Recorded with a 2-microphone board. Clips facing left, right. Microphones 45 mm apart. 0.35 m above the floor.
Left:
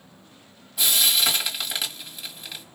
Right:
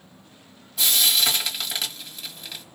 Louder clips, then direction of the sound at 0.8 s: Even; 5° left (ahead or behind).